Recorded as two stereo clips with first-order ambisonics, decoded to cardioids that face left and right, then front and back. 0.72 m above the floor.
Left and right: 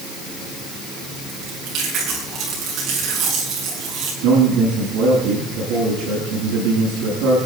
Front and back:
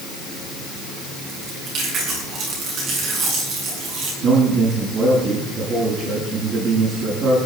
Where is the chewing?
135° right, 8 m.